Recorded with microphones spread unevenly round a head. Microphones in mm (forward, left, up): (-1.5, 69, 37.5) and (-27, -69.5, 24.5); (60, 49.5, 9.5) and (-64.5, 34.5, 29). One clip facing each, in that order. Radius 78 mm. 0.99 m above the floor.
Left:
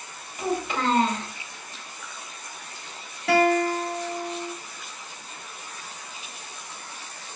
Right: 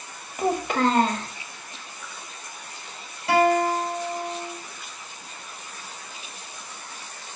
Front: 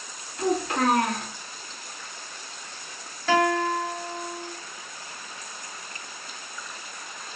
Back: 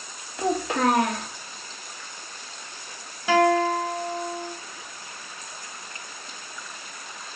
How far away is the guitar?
About 1.2 m.